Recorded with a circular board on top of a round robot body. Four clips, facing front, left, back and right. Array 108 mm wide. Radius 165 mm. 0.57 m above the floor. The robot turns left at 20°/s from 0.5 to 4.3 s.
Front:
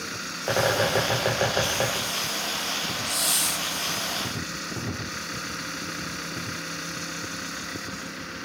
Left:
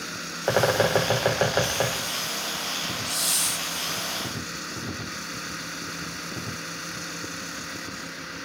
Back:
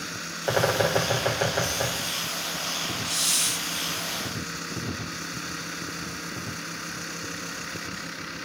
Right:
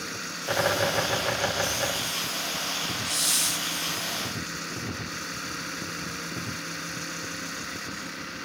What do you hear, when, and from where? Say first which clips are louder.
0.5 s a bird: left 5 dB, even; 95° left, 6.5 m; by 2.0 s 65° left, 6.5 m
3.0 s a hiss: left 1 dB, front 2 dB; 145° right, 0.9 m; by 3.6 s 155° right, 0.9 m